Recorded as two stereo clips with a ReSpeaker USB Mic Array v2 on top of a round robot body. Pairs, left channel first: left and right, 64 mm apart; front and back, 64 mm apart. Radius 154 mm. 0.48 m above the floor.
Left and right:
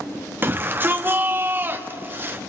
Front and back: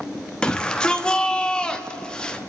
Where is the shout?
65° right, 1.3 m.